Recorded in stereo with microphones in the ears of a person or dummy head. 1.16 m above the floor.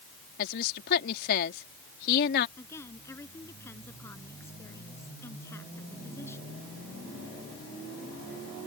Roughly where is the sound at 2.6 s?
Centre.